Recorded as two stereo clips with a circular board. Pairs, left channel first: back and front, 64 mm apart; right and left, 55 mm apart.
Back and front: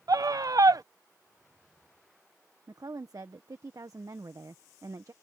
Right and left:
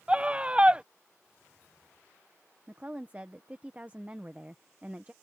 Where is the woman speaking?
30° left.